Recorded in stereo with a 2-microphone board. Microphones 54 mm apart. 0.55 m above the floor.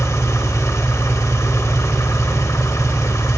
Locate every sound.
0.0 s an engine running: 75° left (ahead or behind), 0.9 m